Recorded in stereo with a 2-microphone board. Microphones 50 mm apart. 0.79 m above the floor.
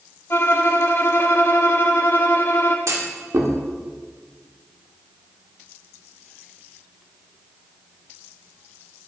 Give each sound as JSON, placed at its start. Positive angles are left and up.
{"t": 0.3, "sound": "a violin", "side_deg": 60, "distance_m": 1.1}
{"t": 2.9, "sound": "a clunk", "side_deg": -75, "distance_m": 1.6}